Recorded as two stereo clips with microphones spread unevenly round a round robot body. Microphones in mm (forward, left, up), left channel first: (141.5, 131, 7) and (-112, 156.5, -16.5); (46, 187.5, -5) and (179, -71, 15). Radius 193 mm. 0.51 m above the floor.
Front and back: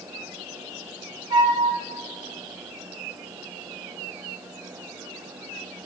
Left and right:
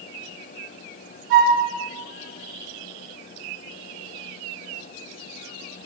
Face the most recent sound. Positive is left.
turn(degrees=-75)